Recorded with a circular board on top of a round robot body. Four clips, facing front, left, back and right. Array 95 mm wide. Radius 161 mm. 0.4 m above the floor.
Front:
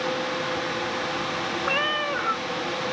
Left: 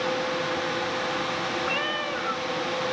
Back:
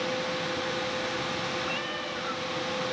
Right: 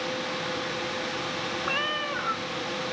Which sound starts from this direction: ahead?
A cat meowing, at 1.6 s.